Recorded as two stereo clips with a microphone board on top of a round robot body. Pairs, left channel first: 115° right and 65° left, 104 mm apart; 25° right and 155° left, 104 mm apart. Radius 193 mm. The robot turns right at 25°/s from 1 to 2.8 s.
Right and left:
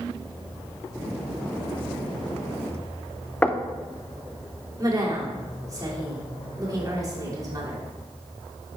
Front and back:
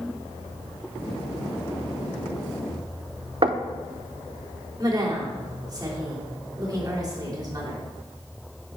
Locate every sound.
3.4 s knocking: 175° left, 0.7 m
4.8 s a woman speaking: 115° left, 2.5 m